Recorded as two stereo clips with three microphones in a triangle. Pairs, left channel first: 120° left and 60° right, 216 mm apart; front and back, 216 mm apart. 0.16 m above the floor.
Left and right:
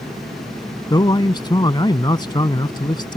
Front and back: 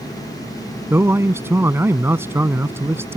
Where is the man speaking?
125° left.